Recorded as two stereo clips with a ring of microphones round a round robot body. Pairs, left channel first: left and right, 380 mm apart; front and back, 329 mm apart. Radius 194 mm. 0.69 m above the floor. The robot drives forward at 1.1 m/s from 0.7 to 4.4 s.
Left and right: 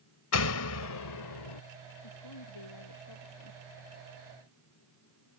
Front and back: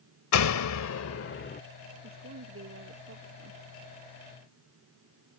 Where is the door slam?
40° left; by 1.6 s 65° left.